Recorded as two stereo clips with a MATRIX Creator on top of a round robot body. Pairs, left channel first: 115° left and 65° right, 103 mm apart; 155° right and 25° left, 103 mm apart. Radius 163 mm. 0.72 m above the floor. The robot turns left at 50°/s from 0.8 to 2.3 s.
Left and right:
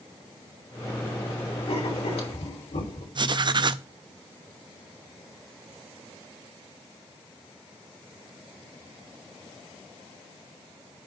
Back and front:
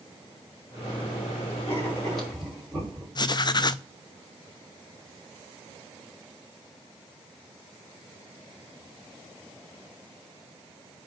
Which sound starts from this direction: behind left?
Writing, at 1.7 s.